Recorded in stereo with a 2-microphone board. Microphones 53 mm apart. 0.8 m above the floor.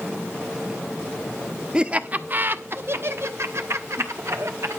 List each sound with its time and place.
1.7 s laughter: 20° right (ahead or behind), 0.8 m; by 4.8 s 70° right (ahead or behind), 2.5 m